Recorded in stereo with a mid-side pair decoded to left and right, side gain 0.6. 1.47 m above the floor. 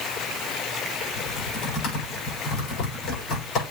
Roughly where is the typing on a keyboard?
Ahead left.